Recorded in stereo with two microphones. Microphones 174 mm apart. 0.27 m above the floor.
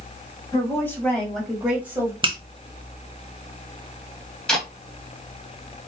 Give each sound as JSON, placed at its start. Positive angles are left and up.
{"t": 0.5, "sound": "a woman speaking", "side_deg": 20, "distance_m": 1.9}
{"t": 2.2, "sound": "a finger snap", "side_deg": -30, "distance_m": 0.8}
{"t": 4.5, "sound": "tape being pulled", "side_deg": 5, "distance_m": 1.7}